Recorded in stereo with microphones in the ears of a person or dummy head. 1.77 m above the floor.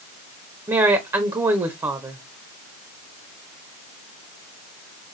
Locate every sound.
0.7 s a woman speaking: 15° right (ahead or behind), 0.5 m